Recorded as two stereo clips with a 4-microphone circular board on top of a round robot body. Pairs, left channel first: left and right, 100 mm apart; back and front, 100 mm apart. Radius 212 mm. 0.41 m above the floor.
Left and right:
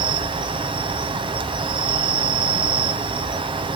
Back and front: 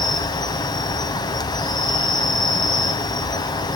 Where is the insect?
130° right, 1.0 m.